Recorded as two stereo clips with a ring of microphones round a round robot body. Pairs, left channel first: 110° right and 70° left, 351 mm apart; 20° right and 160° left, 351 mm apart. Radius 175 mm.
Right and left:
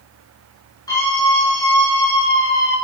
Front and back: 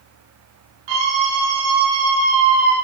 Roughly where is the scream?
Behind.